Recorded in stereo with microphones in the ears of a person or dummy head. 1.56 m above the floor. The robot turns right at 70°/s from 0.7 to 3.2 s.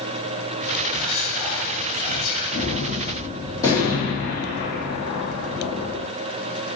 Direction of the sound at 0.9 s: 5° right (ahead or behind).